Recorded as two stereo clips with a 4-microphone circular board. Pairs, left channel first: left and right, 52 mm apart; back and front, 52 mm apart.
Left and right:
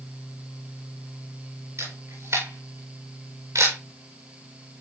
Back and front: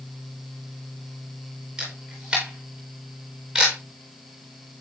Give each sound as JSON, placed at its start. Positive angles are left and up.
{"t": 1.8, "sound": "a camera shutter", "azimuth_deg": -75, "distance_m": 8.0}